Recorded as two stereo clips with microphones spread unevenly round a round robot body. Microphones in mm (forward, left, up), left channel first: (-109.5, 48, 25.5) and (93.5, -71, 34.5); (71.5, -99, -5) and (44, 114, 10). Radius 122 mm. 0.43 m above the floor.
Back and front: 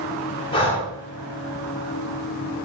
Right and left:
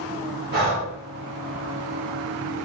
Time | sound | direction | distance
0.5 | breathing | 95° left | 1.6 m